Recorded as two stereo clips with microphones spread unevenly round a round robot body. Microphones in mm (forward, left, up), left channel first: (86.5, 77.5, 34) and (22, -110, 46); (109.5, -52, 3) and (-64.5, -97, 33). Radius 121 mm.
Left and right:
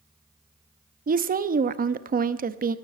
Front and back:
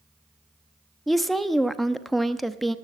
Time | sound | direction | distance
1.1 | a woman speaking | 70° right | 0.8 m